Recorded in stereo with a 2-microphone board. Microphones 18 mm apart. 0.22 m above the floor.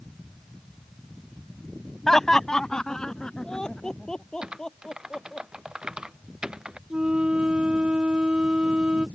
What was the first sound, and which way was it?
Laughter, 25° left (ahead or behind).